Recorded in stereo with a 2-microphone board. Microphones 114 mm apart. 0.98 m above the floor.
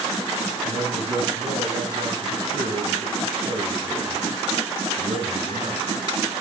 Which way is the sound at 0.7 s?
70° right (ahead or behind).